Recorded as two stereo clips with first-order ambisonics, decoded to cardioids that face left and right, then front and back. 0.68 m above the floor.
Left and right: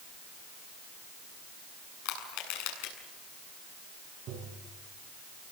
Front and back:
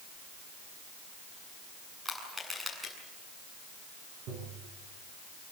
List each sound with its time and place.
2.0 s crushing: 95° left, 7.5 m
4.3 s tapping: 140° right, 7.5 m